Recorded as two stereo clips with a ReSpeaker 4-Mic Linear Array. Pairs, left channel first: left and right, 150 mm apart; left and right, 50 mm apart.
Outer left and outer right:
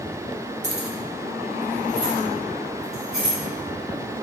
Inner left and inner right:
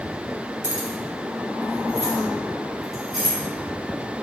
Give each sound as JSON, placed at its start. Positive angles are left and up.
{"t": 0.6, "sound": "keys jangling", "side_deg": -55, "distance_m": 0.6}